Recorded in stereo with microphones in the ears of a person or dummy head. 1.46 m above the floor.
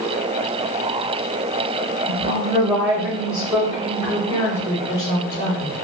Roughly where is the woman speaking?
Right.